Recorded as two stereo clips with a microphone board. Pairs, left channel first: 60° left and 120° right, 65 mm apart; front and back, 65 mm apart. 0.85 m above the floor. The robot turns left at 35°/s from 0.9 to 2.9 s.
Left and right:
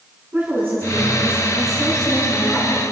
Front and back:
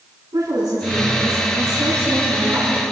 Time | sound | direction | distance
0.3 | a woman speaking | 170° right | 9.5 m